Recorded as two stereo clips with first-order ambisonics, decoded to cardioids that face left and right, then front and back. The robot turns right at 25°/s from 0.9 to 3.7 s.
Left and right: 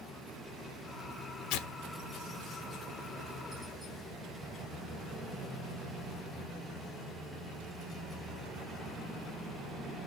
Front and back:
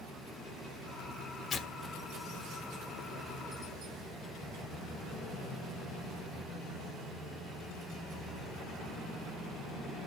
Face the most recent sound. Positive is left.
turn(degrees=120)